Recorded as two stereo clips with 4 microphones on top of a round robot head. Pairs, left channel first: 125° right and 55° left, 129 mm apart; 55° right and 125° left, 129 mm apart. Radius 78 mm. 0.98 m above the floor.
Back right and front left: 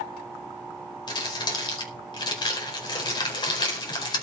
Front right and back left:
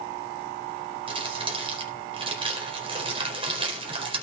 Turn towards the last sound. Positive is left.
turn(degrees=175)